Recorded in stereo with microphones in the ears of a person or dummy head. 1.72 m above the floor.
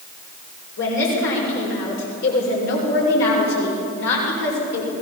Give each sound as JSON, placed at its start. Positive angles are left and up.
{"t": 0.8, "sound": "a woman speaking", "side_deg": 70, "distance_m": 6.5}